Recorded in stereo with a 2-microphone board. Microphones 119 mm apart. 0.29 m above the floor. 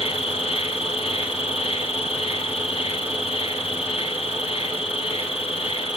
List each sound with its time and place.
0.0 s an insect: 55° left (ahead or behind), 0.9 m